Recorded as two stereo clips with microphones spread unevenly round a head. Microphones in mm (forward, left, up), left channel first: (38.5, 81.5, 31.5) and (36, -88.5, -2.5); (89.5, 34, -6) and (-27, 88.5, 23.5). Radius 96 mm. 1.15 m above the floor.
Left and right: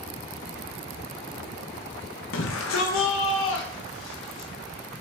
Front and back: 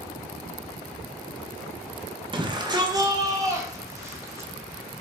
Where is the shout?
100° left, 1.1 m; by 4.5 s 85° left, 2 m.